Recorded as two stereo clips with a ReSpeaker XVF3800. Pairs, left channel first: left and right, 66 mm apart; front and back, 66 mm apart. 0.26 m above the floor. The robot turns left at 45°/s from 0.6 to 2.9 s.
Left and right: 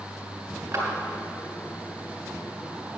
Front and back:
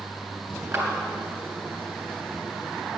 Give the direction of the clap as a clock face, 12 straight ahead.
5 o'clock.